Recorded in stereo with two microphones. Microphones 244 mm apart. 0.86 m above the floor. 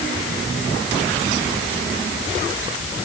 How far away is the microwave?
I don't hear a microwave.